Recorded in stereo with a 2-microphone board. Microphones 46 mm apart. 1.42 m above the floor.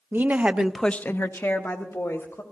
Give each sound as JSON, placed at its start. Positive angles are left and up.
{"t": 0.1, "sound": "a woman speaking", "side_deg": -40, "distance_m": 0.9}